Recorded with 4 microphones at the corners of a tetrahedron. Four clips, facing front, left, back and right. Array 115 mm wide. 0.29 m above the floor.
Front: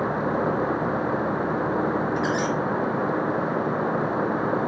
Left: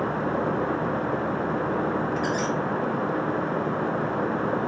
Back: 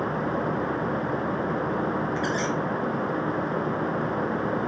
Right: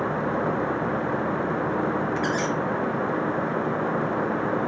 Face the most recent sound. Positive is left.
turn(degrees=-60)